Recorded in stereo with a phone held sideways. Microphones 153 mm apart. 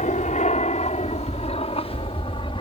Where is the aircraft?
50° left (ahead or behind); by 2.6 s 35° left (ahead or behind).